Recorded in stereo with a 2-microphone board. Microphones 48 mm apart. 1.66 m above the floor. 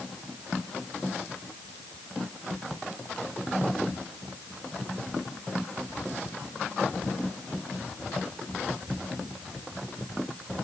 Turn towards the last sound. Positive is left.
No sound to turn to.